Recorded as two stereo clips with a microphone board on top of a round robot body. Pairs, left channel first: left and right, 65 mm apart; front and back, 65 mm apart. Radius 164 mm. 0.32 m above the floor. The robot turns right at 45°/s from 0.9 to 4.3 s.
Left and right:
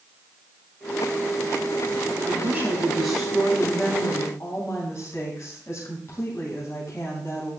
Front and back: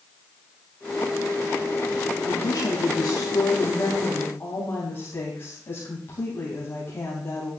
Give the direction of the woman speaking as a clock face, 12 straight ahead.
1 o'clock.